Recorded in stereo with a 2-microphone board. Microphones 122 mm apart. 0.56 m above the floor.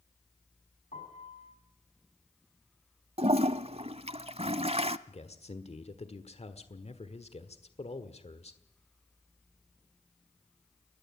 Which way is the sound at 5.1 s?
55° left (ahead or behind).